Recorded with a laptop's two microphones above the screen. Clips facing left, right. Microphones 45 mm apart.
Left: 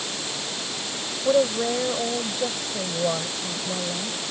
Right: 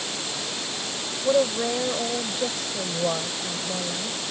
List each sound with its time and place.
1.2 s a woman speaking: 5° left (ahead or behind)